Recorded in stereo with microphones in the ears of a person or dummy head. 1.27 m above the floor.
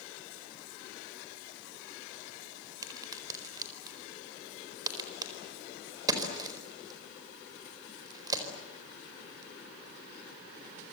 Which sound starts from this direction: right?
A crack, at 2.8 s.